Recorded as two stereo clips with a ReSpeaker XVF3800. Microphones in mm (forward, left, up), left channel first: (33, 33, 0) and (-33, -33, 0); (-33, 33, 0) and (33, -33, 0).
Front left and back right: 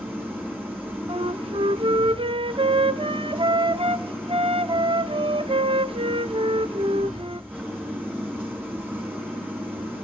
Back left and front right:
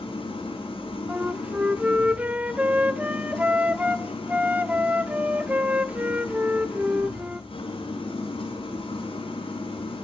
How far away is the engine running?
About 6.5 m.